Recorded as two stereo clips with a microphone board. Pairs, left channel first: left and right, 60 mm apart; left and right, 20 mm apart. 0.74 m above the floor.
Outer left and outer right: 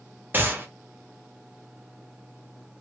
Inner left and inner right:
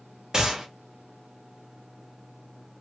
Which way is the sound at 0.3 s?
35° right (ahead or behind).